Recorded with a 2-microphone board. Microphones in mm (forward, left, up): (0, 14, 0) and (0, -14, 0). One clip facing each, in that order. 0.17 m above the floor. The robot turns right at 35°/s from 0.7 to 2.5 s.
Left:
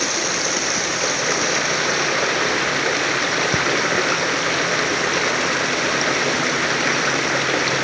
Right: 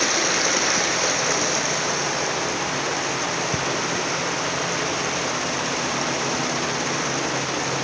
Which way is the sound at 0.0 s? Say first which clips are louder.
Right 1 dB; 5° right.